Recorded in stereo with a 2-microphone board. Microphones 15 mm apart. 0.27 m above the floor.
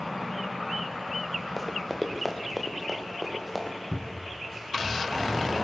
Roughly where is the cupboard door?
Centre.